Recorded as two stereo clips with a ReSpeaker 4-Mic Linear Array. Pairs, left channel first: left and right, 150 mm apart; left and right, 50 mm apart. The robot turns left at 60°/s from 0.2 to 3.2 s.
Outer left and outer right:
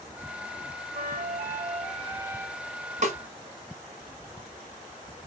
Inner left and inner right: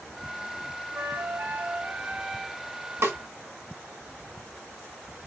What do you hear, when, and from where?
0.9 s a flute: 70° right, 0.5 m; by 2.6 s 175° right, 0.5 m
3.0 s a snare drum: 55° right (ahead or behind), 1.1 m; by 3.2 s 50° right (ahead or behind), 1.1 m